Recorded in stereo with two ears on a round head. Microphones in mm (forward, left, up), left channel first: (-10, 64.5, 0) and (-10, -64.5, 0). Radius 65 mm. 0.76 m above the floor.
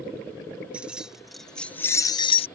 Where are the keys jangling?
10° right (ahead or behind); by 2.5 s 40° left (ahead or behind).